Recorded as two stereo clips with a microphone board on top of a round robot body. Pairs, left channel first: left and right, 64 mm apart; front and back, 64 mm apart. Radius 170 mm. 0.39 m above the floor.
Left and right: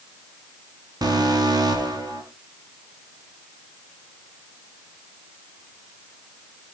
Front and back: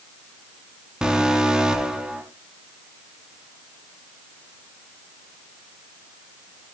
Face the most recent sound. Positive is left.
turn(degrees=-105)